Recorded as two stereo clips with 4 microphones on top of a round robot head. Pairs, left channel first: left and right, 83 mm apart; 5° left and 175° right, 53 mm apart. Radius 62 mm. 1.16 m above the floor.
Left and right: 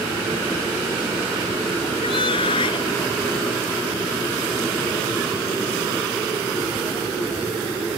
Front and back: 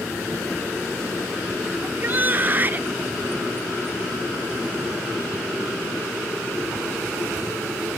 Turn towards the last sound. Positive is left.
turn(degrees=125)